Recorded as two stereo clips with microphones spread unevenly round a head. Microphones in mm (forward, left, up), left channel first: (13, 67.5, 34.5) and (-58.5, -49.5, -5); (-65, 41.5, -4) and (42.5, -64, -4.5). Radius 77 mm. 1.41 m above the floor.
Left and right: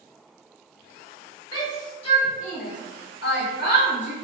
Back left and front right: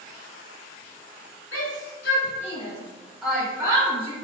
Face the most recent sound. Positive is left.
turn(degrees=15)